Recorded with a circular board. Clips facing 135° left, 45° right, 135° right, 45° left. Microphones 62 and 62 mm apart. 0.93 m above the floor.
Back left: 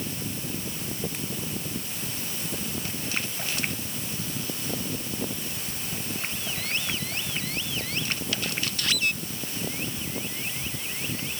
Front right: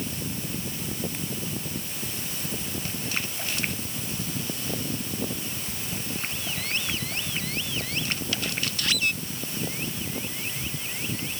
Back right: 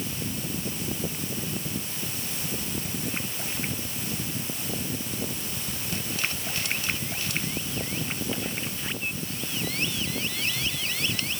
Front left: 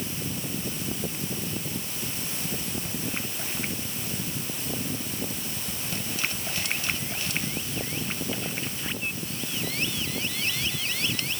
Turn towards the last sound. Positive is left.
No sound to turn to.